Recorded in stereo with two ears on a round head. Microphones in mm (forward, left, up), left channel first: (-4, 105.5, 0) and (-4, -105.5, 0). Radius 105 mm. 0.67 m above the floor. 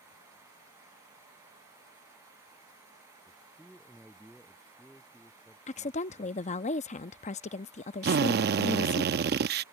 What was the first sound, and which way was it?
A man speaking, 5° right (ahead or behind).